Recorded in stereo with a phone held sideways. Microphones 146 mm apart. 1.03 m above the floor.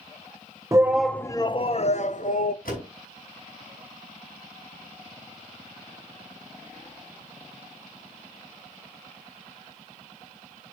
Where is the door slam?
80° left, 5.5 m.